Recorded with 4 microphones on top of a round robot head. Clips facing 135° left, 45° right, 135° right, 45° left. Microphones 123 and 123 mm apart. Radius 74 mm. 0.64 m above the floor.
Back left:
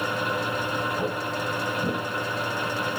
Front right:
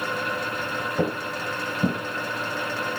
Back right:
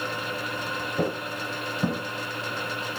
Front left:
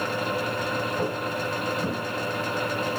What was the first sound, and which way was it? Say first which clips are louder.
Footsteps: front right 1 dB, front left 1 dB; 75° right.